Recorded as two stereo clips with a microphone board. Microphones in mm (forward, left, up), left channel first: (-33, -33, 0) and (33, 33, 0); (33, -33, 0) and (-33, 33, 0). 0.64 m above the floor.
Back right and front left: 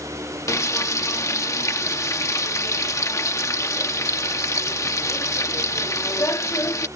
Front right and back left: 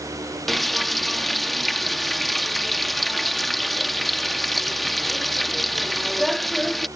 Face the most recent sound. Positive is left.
turn(degrees=-130)